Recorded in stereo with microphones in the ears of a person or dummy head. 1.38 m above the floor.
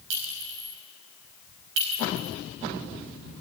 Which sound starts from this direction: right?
A clink, at 0.1 s.